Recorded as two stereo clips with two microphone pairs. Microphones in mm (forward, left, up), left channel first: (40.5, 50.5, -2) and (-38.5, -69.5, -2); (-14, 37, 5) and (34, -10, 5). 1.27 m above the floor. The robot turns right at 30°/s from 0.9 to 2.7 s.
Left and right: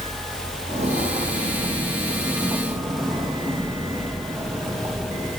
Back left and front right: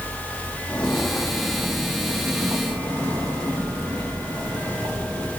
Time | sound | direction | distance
0.7 | footsteps | 155° right | 2.5 m